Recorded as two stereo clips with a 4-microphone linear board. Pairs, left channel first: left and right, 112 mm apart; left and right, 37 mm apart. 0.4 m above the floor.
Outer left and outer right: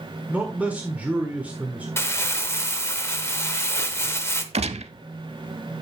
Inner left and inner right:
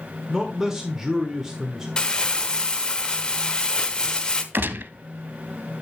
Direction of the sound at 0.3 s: 15° right (ahead or behind).